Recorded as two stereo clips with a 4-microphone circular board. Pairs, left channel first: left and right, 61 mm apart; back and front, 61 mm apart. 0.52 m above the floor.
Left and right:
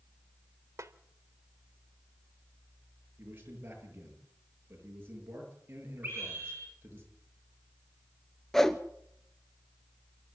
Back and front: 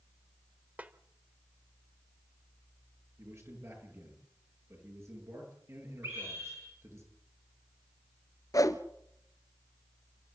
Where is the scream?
35° right, 7.5 m.